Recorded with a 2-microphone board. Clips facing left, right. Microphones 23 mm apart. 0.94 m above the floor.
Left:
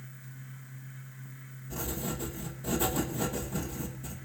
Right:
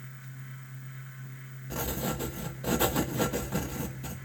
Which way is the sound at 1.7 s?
45° right (ahead or behind).